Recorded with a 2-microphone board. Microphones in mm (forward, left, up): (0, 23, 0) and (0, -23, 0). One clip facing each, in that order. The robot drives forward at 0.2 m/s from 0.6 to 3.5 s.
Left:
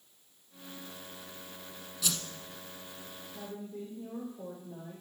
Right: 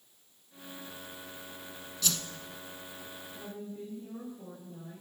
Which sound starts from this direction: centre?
A whoosh, at 2.0 s.